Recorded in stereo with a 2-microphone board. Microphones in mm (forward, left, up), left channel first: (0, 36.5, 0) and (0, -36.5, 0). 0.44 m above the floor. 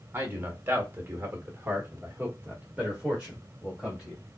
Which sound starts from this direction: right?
A man speaking, at 0.1 s.